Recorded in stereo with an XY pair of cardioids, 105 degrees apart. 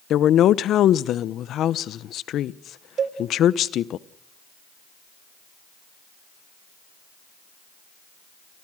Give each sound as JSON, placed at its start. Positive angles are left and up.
{"t": 0.1, "sound": "a woman speaking", "azimuth_deg": 70, "distance_m": 0.9}
{"t": 3.0, "sound": "a cowbell", "azimuth_deg": -55, "distance_m": 1.9}